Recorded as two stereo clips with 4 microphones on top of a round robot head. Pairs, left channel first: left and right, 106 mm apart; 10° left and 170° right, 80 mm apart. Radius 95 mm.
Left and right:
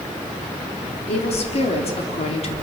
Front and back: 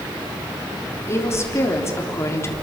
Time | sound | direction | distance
1.1 | a woman speaking | 65° left | 3.5 m